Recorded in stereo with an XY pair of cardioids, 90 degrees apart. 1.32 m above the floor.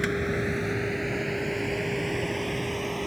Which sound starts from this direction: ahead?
A vehicle, at 0.0 s.